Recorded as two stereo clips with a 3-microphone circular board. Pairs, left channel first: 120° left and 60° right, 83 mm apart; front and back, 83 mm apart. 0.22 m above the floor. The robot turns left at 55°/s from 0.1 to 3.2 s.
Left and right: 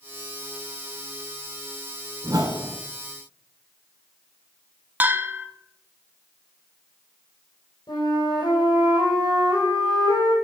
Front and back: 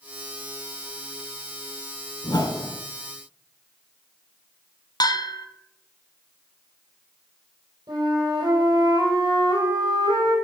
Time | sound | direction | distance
2.2 | a whoosh | 20° right | 1.2 m
5.0 | a bell | 5° left | 0.8 m
7.9 | a flute | 150° left | 4 m